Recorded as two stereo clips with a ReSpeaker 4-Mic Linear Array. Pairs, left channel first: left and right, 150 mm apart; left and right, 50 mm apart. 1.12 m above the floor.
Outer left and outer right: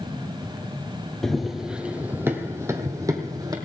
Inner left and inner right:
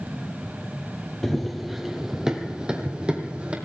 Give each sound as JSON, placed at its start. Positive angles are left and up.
{"t": 1.2, "sound": "running footsteps", "side_deg": 5, "distance_m": 1.5}